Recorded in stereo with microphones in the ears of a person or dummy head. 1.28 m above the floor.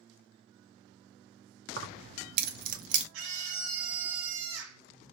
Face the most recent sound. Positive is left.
turn(degrees=-85)